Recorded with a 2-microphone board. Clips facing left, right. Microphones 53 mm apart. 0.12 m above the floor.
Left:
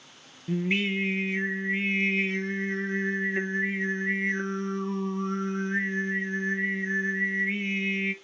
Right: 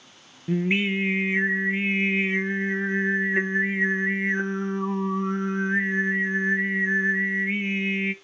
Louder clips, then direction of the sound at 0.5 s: Right 3 dB; 20° right (ahead or behind).